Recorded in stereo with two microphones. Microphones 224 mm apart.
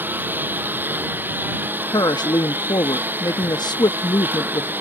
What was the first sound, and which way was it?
A lawn mower, 10° right (ahead or behind).